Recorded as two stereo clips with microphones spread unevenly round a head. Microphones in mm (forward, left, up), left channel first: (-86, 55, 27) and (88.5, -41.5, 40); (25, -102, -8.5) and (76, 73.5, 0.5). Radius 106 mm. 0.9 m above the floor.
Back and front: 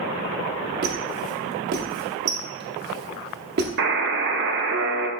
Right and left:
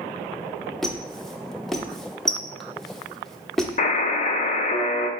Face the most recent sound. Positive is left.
turn(degrees=-55)